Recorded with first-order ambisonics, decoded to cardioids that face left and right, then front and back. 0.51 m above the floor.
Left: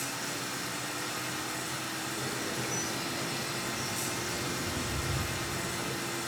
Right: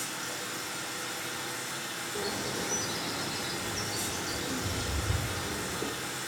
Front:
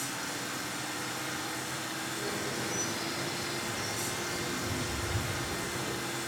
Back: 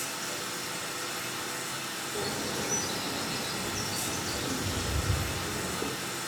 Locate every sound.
0.0 s running water: 135° left, 4.5 m
2.1 s a bird: 165° right, 3 m